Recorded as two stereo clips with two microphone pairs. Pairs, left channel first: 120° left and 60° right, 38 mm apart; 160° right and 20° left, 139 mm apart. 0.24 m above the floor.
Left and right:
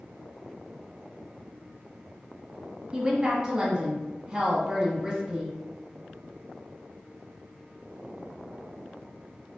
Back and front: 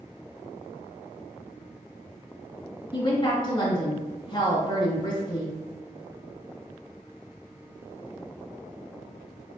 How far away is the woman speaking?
About 1.8 m.